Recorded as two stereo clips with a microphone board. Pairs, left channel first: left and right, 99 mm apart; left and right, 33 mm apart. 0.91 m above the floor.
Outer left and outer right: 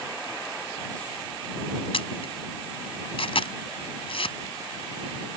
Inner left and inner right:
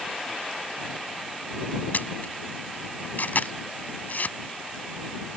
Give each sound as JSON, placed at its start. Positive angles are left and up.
{"t": 1.9, "sound": "a camera shutter", "side_deg": 70}